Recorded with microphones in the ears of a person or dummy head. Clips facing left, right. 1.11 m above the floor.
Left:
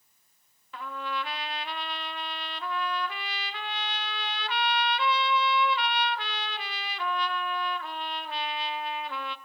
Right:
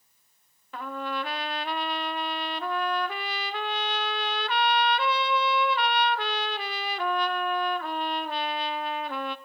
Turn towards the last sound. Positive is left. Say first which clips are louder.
# right 3 dB
turn(degrees=-40)  # may be behind; listen again after turning